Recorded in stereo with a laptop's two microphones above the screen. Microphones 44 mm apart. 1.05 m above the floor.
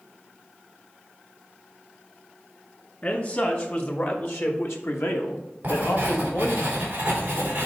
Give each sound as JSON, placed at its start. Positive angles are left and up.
{"t": 3.0, "sound": "a man speaking", "side_deg": 40, "distance_m": 1.8}
{"t": 5.6, "sound": "writing", "side_deg": -35, "distance_m": 3.0}